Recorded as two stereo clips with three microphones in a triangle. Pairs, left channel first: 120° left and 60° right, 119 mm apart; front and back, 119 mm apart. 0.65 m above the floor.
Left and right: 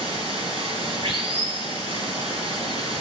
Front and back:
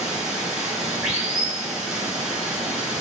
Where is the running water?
95° right, 5.5 m.